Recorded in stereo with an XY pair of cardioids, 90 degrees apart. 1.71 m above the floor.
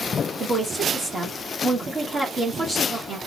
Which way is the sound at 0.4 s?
30° right.